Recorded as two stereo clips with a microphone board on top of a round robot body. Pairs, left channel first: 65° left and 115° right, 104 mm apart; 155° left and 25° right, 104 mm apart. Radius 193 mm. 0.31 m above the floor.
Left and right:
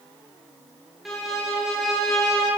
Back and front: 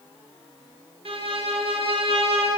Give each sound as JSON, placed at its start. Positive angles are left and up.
{"t": 1.1, "sound": "a violin", "azimuth_deg": -25, "distance_m": 1.4}